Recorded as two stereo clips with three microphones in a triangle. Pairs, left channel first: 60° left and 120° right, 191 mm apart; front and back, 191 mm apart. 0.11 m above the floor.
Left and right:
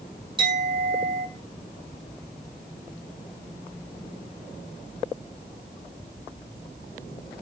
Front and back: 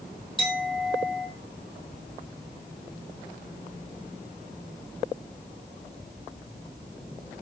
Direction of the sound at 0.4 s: 55° right.